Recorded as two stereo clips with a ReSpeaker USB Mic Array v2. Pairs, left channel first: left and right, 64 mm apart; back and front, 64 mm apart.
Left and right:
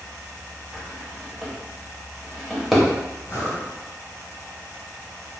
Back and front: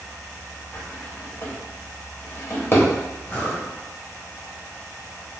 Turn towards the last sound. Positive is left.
turn(degrees=120)